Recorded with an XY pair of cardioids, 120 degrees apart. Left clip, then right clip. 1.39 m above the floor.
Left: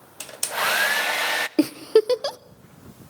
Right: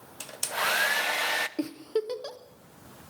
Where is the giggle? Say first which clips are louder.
Left 12 dB; 60° left, 0.5 m.